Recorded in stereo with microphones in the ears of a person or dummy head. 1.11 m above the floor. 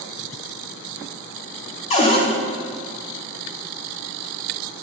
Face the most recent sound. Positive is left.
turn(degrees=30)  # may be behind; listen again after turning